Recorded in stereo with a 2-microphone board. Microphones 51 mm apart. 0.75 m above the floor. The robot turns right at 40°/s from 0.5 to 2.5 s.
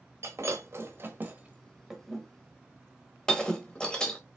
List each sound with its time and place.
0.2 s breaking glass: 65° right (ahead or behind), 1.2 m; by 4.2 s 15° left (ahead or behind), 1.2 m